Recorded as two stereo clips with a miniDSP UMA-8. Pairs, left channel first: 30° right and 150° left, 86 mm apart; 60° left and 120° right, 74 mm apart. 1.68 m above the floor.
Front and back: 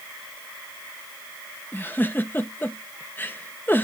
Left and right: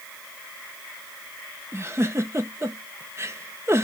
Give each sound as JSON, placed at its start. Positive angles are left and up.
{"t": 1.7, "sound": "a giggle", "azimuth_deg": -85, "distance_m": 0.8}